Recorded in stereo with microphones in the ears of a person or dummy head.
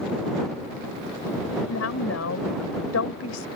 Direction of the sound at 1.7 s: 90° left.